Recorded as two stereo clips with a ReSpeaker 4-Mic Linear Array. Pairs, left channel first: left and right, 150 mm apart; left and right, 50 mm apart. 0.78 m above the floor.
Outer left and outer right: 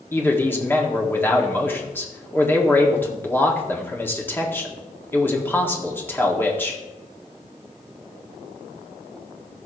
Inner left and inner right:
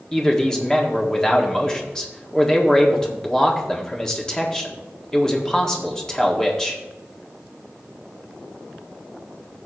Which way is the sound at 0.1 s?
15° left (ahead or behind).